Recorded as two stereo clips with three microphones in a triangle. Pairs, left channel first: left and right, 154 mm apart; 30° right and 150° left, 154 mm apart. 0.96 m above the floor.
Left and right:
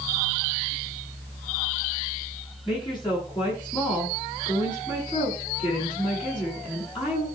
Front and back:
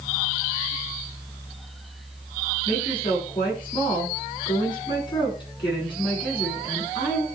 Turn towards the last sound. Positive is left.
turn(degrees=30)